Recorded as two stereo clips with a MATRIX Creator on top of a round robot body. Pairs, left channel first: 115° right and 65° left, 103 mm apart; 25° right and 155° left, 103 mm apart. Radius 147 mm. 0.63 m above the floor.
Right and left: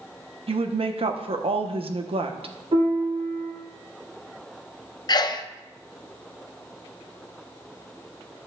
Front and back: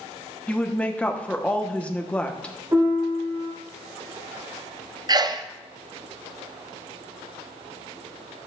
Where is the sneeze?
155° right, 0.9 m.